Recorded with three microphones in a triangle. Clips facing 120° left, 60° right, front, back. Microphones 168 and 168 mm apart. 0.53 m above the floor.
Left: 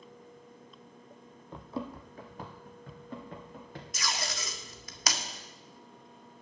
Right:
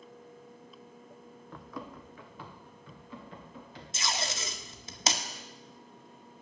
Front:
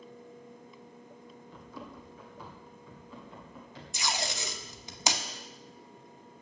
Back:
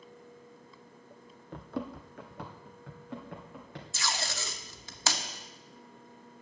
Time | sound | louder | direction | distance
1.5 | running footsteps | left 5 dB, back 10 dB | 170° right | 0.9 m
3.9 | tape being pulled | right 2 dB, front 2 dB | 50° right | 1.0 m